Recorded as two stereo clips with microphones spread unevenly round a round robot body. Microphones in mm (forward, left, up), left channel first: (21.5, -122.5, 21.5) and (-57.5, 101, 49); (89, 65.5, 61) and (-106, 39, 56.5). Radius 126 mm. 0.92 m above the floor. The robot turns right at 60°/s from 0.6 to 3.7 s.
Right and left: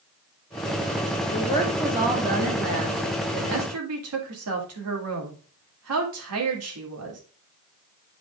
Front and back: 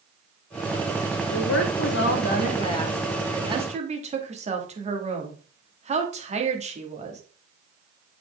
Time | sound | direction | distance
1.3 | a woman speaking | 10° right | 2.0 m